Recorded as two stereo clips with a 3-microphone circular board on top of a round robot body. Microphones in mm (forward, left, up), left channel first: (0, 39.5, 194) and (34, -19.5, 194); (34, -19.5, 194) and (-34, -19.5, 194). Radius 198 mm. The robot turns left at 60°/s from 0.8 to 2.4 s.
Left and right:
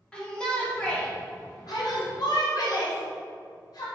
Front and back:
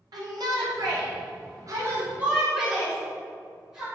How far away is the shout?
About 2.5 m.